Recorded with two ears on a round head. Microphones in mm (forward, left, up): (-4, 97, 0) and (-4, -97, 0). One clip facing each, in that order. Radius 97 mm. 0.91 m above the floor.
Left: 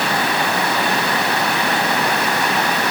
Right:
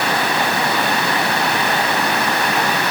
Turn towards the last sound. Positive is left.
No sound to turn to.